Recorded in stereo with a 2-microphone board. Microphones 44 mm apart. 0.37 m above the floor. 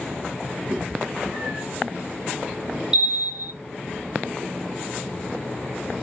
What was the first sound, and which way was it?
A cat meowing, 60° right (ahead or behind).